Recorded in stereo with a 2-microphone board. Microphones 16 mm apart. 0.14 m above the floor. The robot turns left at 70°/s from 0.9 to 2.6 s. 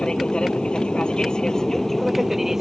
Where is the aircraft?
90° left; by 2.6 s 30° right.